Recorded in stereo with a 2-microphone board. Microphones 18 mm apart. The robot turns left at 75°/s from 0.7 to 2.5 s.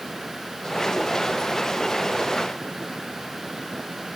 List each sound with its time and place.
Only background noise.